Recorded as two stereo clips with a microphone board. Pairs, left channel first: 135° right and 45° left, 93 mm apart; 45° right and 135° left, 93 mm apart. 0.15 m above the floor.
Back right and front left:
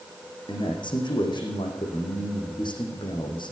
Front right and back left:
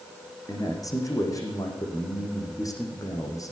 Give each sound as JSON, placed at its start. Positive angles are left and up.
{"t": 0.5, "sound": "a man speaking", "azimuth_deg": -100, "distance_m": 6.5}